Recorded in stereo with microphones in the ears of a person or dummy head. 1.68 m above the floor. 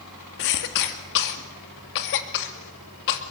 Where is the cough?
60° left (ahead or behind), 2.5 m.